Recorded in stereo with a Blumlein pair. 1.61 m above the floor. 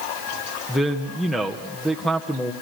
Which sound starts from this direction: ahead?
A man speaking, at 0.7 s.